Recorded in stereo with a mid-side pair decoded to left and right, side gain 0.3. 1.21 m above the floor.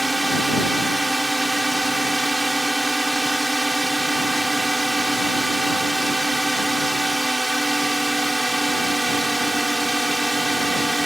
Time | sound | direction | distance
0.0 | a drone | 20° right | ?